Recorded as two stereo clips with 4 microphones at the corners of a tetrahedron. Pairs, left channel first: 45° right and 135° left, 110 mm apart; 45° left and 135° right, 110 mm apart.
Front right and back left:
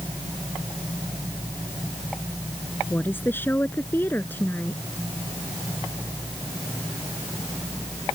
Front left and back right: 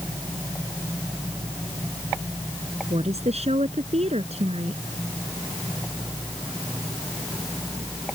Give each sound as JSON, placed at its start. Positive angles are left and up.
{"t": 2.9, "sound": "a woman speaking", "azimuth_deg": -115}